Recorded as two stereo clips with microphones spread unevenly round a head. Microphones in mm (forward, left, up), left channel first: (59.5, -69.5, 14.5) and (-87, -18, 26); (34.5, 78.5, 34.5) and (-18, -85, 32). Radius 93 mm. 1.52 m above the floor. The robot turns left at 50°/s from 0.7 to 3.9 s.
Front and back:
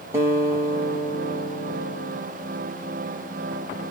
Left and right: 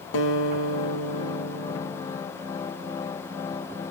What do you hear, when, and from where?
0.1 s a guitar: 85° left, 2 m; by 2.2 s 10° left, 2 m